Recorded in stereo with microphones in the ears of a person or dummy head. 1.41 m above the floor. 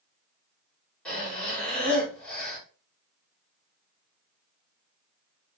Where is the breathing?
5° left (ahead or behind), 1.9 m.